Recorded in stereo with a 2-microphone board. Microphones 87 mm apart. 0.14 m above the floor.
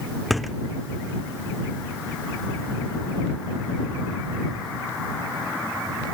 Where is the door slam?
Centre (ahead or behind).